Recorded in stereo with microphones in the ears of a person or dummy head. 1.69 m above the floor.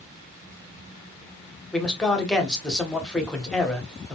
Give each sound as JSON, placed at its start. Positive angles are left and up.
{"t": 1.7, "sound": "a man speaking", "side_deg": 5, "distance_m": 1.5}